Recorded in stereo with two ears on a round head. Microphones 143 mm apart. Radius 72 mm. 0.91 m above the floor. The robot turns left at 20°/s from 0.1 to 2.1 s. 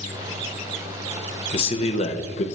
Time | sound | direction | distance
1.5 | a man speaking | 35° left (ahead or behind) | 0.7 m